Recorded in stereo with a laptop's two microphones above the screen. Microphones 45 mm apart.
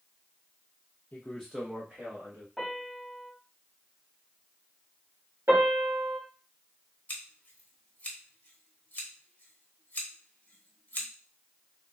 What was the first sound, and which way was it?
A man speaking, 35° left (ahead or behind).